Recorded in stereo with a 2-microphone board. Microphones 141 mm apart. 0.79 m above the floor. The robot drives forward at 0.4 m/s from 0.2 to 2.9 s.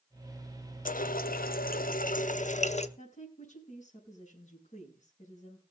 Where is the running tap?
70° left (ahead or behind), 0.7 m; by 2.9 s 50° left (ahead or behind), 0.9 m.